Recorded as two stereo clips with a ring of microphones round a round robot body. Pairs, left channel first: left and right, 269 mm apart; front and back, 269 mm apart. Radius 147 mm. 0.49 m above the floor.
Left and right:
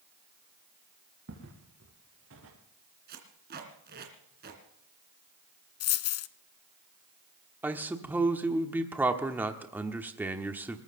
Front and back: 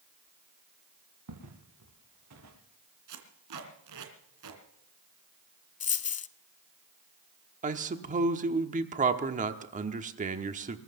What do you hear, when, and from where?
1.3 s footsteps: 145° right, 4 m; by 2.5 s 140° right, 6 m
3.1 s tape being pulled: 150° right, 2.5 m
5.8 s a dropped coin: 60° left, 0.7 m
7.6 s a man speaking: 165° right, 1.2 m